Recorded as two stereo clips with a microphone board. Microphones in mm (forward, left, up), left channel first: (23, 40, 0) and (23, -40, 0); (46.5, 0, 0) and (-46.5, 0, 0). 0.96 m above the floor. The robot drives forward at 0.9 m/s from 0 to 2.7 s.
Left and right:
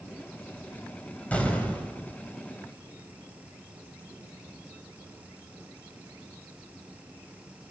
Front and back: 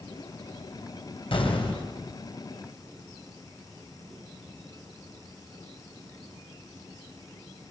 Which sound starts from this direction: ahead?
An explosion, at 1.3 s.